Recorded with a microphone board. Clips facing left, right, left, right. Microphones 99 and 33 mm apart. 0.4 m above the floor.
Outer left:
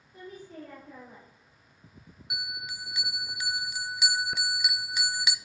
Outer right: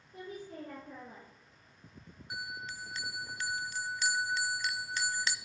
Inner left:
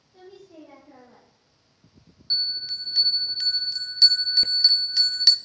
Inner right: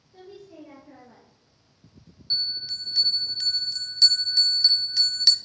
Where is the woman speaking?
45° right (ahead or behind), 6.5 m.